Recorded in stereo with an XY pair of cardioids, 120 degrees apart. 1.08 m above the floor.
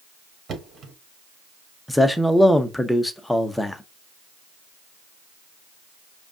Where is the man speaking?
5° left, 0.8 m.